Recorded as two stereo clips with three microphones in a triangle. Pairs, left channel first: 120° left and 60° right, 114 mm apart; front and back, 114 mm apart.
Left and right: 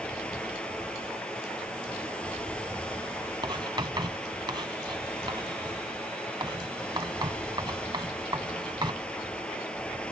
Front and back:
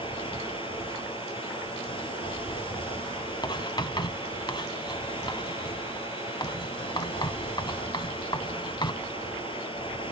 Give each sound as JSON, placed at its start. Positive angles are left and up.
{"t": 0.0, "sound": "running water", "azimuth_deg": 40, "distance_m": 3.5}
{"t": 3.4, "sound": "writing", "azimuth_deg": -30, "distance_m": 1.3}